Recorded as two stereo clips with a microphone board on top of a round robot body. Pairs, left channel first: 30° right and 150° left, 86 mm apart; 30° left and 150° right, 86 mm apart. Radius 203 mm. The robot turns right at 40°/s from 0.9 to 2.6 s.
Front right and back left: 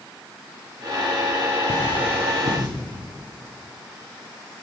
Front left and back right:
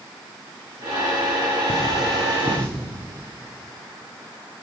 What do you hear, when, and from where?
1.7 s cutlery clinking: 70° left, 1.3 m; by 2.7 s 105° left, 1.3 m